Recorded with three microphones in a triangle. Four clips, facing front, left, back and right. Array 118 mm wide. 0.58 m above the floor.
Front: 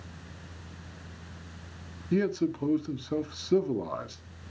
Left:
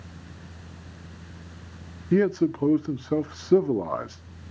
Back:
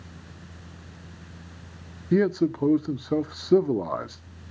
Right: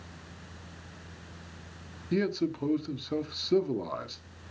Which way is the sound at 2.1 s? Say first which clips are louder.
Left 7 dB, back 5 dB; 135° left.